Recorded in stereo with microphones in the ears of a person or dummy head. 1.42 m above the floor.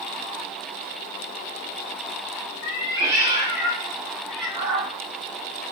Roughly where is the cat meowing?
Centre.